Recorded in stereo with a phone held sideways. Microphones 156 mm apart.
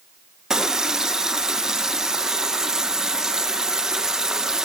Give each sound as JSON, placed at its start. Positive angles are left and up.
{"t": 0.5, "sound": "a running tap", "side_deg": -5, "distance_m": 0.8}